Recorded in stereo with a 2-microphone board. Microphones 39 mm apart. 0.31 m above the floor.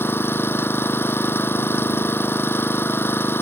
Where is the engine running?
80° left.